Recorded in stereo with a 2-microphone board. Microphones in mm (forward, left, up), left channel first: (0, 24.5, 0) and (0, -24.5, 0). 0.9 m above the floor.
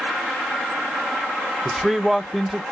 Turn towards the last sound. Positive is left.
turn(degrees=0)  # may be behind; listen again after turning